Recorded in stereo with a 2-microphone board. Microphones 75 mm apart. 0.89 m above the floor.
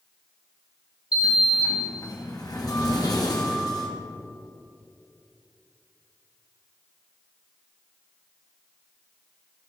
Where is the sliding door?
60° left (ahead or behind), 1.4 m.